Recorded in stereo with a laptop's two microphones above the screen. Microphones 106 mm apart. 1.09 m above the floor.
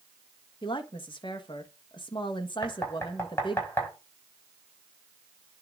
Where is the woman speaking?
50° left (ahead or behind), 1.5 m.